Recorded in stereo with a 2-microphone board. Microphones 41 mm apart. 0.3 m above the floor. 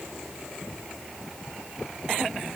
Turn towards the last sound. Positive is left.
No sound to turn to.